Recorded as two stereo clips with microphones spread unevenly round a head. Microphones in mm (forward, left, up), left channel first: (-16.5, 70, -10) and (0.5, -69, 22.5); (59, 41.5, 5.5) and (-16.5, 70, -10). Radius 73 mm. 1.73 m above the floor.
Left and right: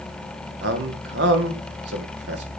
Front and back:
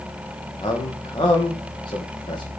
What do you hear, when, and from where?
0.6 s a man speaking: 80° right, 2.5 m